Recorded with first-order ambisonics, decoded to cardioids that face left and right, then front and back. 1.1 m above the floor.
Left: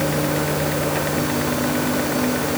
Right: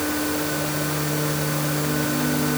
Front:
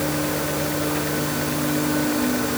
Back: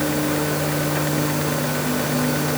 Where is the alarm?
I don't hear an alarm.